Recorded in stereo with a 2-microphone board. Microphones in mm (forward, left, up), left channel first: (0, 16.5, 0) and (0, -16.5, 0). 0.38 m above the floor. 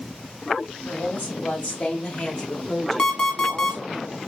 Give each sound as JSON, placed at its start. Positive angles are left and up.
{"t": 0.8, "sound": "a woman speaking", "side_deg": 65, "distance_m": 1.9}
{"t": 3.0, "sound": "an alarm clock", "side_deg": 25, "distance_m": 1.0}